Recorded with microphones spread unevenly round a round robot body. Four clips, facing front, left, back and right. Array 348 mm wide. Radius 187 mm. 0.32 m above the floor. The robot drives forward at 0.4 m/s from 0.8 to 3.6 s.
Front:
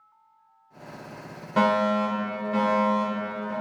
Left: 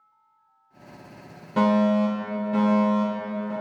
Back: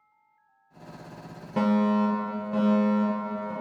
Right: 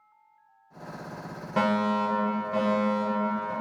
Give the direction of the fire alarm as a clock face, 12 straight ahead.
7 o'clock.